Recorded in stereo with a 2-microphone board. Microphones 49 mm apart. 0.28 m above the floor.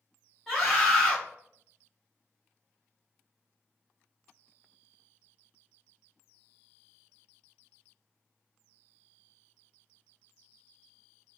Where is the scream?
Centre (ahead or behind), 1.6 m.